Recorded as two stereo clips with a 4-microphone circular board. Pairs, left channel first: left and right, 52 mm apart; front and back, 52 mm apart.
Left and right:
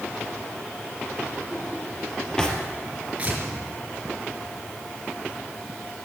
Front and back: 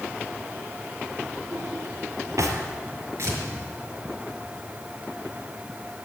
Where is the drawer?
165° left, 3 m.